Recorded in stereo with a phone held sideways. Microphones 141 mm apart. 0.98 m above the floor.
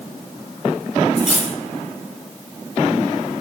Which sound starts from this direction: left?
Cutlery clinking, at 1.2 s.